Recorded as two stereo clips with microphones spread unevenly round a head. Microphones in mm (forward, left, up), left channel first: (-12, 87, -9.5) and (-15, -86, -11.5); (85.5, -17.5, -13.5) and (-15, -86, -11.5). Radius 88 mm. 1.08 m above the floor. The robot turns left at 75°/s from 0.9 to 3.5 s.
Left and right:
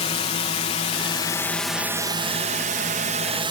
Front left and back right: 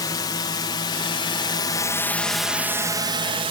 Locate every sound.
0.0 s a drone: 65° left; by 3.5 s 140° right